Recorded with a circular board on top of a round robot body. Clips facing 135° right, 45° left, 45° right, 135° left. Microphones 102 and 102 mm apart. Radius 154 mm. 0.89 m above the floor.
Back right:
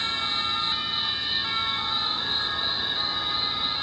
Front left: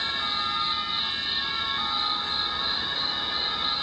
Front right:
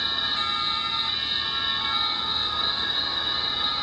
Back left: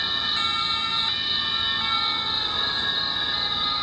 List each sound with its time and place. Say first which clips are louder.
0.0 s an insect: front left 1 dB, back left 1 dB; 140° right, 4 m